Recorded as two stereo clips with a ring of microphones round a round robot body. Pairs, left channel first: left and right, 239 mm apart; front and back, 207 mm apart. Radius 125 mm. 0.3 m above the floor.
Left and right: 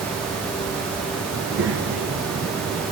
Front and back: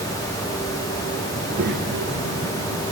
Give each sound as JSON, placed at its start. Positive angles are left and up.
{"t": 1.3, "sound": "a child speaking", "azimuth_deg": -130, "distance_m": 4.0}